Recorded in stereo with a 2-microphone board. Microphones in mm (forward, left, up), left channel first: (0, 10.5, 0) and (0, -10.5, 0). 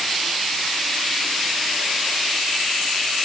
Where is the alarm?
I don't hear an alarm.